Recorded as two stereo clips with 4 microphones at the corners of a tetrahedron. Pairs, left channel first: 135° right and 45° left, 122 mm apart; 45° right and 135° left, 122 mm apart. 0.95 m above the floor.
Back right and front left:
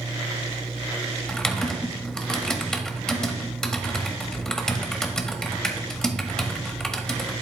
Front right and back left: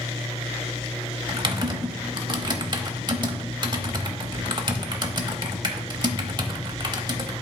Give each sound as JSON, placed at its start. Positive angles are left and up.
{"t": 1.3, "sound": "typing on a keyboard", "azimuth_deg": 145, "distance_m": 0.8}